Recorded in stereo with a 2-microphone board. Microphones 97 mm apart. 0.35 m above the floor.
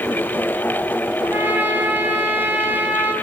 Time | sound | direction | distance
1.2 | a trumpet | 20° right (ahead or behind) | 8 m